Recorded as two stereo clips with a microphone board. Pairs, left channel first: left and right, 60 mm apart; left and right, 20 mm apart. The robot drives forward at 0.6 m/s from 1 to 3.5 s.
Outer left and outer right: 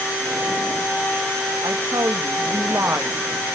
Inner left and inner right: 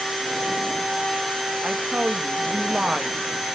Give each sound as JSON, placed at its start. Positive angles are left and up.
{"t": 1.6, "sound": "a woman speaking", "side_deg": -70, "distance_m": 1.5}